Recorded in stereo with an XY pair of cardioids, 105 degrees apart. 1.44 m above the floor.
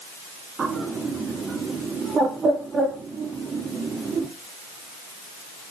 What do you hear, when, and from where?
0.6 s a bird: 45° right, 3 m